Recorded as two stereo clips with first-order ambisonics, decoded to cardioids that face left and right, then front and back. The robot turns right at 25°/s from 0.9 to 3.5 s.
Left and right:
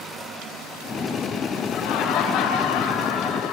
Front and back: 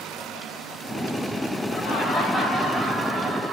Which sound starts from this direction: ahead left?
Laughter, at 1.7 s.